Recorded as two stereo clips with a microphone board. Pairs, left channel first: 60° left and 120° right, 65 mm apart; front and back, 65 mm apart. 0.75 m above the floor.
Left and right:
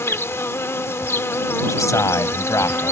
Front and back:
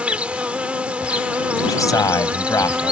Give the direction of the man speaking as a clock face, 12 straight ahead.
11 o'clock.